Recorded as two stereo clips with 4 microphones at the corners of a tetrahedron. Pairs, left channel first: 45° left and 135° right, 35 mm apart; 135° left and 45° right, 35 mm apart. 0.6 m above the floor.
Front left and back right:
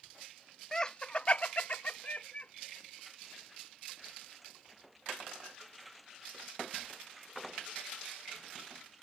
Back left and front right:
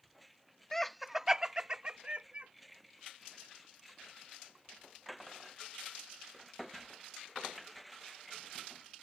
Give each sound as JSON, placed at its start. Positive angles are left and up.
{"t": 0.7, "sound": "laughter", "azimuth_deg": 85}